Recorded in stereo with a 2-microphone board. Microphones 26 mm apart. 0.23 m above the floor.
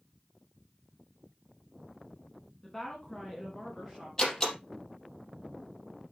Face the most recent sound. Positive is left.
turn(degrees=15)  # may be behind; listen again after turning